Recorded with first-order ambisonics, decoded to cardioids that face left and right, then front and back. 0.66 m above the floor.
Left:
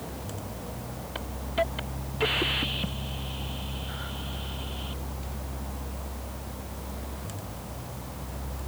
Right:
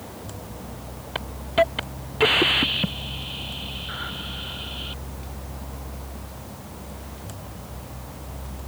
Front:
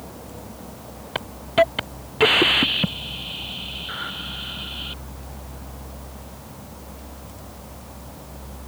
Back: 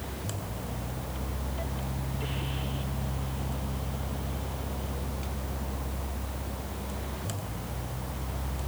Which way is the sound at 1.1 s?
25° right.